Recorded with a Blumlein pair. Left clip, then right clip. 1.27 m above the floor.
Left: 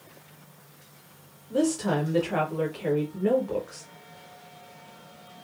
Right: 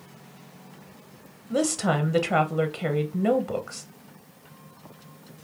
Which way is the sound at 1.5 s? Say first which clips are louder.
Right 1 dB; 65° right.